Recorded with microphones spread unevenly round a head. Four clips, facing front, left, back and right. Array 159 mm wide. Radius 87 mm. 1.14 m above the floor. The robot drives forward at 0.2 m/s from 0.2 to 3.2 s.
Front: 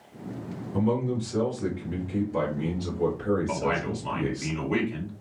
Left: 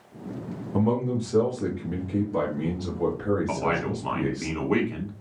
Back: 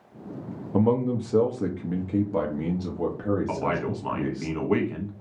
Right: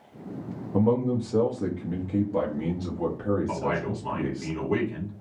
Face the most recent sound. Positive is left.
turn(degrees=130)